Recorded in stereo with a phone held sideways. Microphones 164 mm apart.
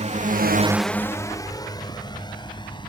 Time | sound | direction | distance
0.0 | a drone | 40° right (ahead or behind) | ?